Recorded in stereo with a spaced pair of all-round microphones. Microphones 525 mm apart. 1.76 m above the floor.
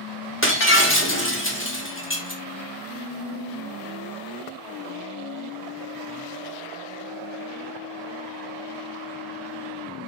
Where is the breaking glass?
25° left (ahead or behind), 1.4 m.